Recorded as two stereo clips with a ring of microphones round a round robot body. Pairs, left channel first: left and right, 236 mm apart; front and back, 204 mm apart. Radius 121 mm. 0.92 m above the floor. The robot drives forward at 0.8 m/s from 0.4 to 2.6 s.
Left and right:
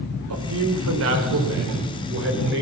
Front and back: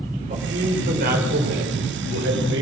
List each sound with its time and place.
0.3 s a man speaking: 120° right, 4 m; by 2.6 s 135° right, 5 m